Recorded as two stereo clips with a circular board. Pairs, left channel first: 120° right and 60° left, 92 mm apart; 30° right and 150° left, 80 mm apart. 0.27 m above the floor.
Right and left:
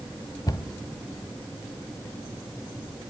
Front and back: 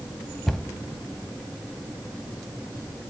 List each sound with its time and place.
0.5 s a cupboard door: 115° right, 1.2 m